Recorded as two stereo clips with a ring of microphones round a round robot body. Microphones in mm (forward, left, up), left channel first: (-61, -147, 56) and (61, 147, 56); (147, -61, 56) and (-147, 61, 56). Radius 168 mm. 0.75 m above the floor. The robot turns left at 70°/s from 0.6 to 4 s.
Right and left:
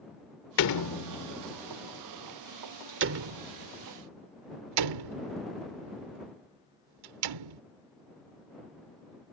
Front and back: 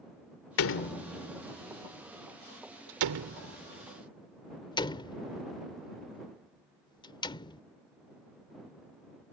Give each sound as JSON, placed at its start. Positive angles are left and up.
{"t": 0.6, "sound": "a door slam", "azimuth_deg": -70}